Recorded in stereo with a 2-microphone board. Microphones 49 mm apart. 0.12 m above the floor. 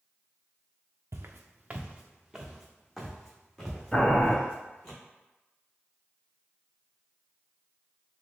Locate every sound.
1.1 s footsteps: 65° right (ahead or behind), 0.5 m; by 4.9 s 15° left (ahead or behind), 2.5 m
3.9 s boiling: 15° left (ahead or behind), 1.8 m